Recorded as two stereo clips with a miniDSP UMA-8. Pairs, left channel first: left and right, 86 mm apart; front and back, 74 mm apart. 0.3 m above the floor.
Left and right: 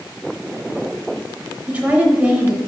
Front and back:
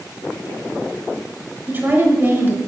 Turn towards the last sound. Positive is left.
turn(degrees=-150)